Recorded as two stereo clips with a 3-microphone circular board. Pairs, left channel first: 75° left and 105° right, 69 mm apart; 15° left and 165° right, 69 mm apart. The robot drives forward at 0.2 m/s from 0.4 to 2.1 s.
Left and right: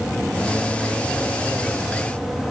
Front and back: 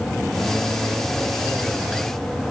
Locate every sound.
Only background noise.